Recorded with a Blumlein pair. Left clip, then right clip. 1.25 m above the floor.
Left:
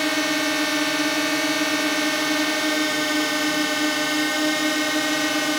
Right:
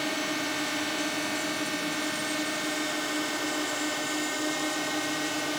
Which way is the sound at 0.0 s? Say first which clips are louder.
Left 8 dB; 25° left.